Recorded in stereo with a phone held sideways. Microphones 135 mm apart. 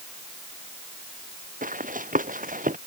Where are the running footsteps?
80° right.